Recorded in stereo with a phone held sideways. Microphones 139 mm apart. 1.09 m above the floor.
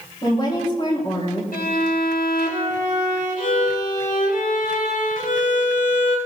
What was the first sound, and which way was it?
A woman speaking, 35° left (ahead or behind).